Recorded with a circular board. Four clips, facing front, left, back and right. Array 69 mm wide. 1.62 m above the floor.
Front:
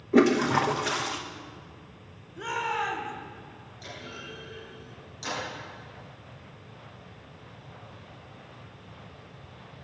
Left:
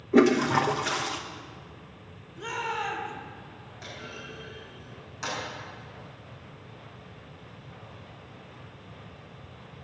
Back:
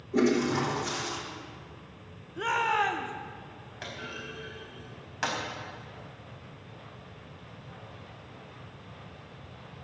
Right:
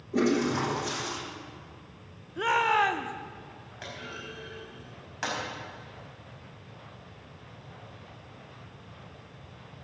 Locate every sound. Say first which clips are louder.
0.1 s a toilet flushing: left 5 dB, front 4 dB; 45° left, 1.2 m
2.4 s a shout: right 8 dB, back 3 dB; 110° right, 1.3 m
3.8 s a clunk: right 1 dB, back 2 dB; 150° right, 4.5 m